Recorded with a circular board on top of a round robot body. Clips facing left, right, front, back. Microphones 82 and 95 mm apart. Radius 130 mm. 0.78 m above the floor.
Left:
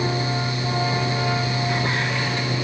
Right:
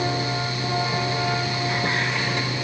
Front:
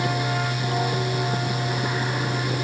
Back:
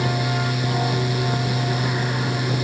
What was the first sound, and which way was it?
Only background noise.